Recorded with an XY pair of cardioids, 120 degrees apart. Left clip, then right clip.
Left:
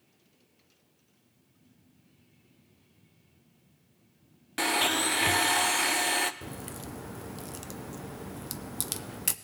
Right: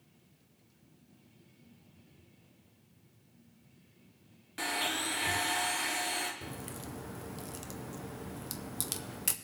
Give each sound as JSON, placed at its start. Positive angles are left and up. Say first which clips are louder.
{"t": 4.6, "sound": "a blender", "louder": "left 7 dB", "azimuth_deg": 50, "distance_m": 0.7}
{"t": 6.4, "sound": "a crack", "louder": "left 2 dB", "azimuth_deg": 20, "distance_m": 0.5}